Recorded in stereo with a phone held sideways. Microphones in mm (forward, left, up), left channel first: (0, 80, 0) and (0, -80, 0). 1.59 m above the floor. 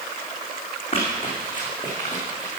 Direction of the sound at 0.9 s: 35° left (ahead or behind).